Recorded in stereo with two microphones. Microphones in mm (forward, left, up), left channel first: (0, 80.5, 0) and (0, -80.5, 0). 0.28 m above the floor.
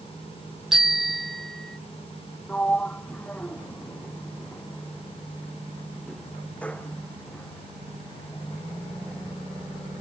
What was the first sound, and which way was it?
A bicycle bell, centre (ahead or behind).